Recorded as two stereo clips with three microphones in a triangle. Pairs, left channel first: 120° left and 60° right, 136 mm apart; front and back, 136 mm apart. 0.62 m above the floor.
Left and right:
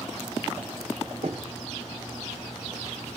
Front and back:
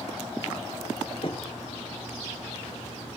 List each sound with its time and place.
1.2 s knocking: 40° right, 1.6 m